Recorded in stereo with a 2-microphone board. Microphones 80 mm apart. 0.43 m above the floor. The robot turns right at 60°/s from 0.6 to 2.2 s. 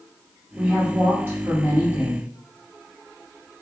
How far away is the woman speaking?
About 1.1 m.